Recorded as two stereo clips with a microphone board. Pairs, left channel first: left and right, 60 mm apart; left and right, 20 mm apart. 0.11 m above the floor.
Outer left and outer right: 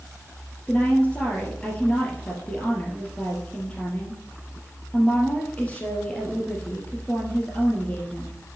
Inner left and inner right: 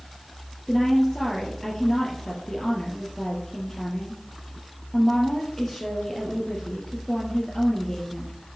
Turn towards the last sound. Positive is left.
turn(degrees=25)  # may be behind; listen again after turning